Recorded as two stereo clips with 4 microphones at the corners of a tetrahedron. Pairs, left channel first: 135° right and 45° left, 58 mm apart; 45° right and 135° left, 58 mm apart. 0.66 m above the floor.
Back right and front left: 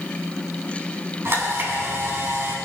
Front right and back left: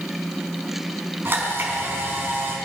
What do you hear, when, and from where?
1.2 s a camera shutter: 85° left, 5 m